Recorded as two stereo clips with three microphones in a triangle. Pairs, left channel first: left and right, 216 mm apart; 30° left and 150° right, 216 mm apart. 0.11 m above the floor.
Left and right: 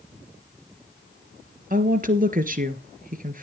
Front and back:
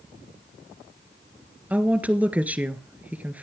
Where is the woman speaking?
70° right, 1.6 m.